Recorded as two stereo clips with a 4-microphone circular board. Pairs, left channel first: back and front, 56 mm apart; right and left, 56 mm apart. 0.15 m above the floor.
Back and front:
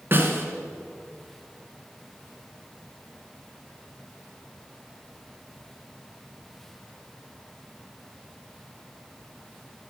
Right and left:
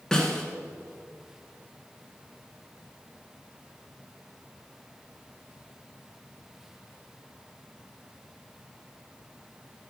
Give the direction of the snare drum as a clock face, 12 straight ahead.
12 o'clock.